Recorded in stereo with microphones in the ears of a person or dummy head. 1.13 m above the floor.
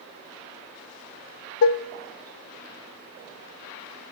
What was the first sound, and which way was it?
Dishes clattering, 65° left (ahead or behind).